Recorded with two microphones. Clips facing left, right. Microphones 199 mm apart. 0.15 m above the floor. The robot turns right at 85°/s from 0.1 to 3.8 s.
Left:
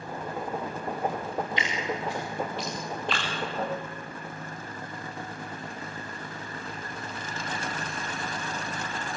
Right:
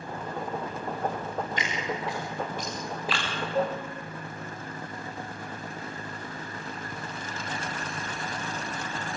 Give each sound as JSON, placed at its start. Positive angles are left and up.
{"t": 1.6, "sound": "dripping", "side_deg": -45, "distance_m": 9.5}
{"t": 3.5, "sound": "a cowbell", "side_deg": -70, "distance_m": 3.0}